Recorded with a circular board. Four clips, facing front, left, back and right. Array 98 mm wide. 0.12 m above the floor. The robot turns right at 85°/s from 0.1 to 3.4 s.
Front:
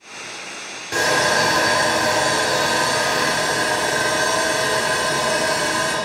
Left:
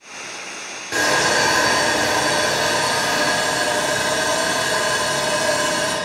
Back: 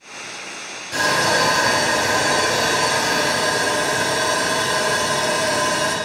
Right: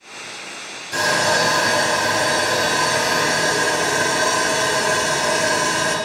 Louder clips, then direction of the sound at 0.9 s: Even, even; 55° left.